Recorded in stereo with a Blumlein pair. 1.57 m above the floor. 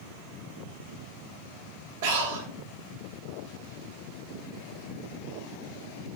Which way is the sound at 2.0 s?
55° right.